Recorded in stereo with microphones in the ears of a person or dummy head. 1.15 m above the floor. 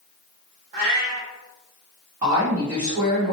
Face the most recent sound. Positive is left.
turn(degrees=-35)  # may be behind; listen again after turning